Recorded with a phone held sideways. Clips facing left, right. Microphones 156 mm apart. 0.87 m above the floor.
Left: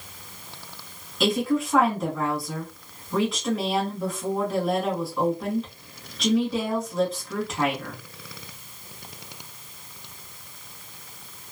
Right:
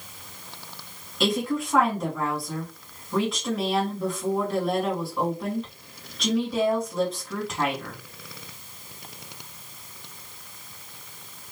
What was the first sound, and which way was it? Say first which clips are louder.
A woman speaking: left 2 dB; centre (ahead or behind).